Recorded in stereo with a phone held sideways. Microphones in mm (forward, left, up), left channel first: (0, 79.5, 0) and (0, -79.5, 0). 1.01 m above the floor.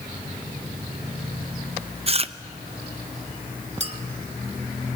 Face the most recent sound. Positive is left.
turn(degrees=-40)  # may be behind; listen again after turning